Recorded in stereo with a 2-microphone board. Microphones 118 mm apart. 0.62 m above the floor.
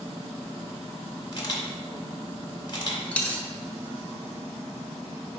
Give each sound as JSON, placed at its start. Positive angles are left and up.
{"t": 1.3, "sound": "a camera shutter", "side_deg": 40, "distance_m": 0.8}
{"t": 3.1, "sound": "a dropped coin", "side_deg": 10, "distance_m": 0.7}